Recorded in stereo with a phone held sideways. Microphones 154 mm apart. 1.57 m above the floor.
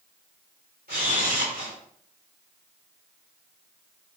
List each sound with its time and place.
0.9 s a camera shutter: 85° right, 4.5 m